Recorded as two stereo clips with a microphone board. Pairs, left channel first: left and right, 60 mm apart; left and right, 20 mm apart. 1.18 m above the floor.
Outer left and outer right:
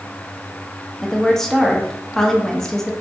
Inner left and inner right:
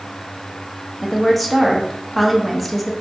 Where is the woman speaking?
5° left (ahead or behind), 0.6 m.